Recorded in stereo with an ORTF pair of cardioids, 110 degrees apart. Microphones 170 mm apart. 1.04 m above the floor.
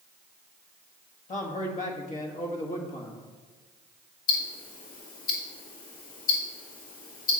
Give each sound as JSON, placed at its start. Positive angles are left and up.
{"t": 1.3, "sound": "a man speaking", "azimuth_deg": 50, "distance_m": 1.7}
{"t": 4.3, "sound": "ticking", "azimuth_deg": 60, "distance_m": 2.0}